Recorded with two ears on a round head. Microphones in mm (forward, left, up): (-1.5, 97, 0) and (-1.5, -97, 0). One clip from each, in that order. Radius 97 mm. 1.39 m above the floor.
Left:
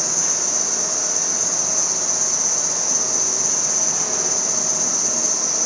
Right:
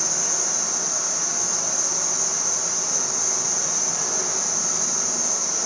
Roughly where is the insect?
Centre.